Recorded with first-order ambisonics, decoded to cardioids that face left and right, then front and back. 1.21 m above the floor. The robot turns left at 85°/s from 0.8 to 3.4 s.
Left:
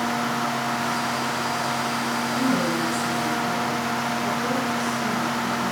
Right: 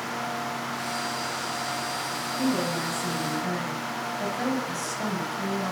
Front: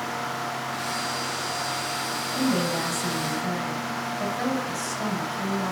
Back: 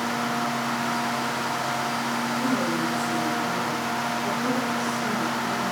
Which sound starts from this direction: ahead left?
A woman speaking, at 2.3 s.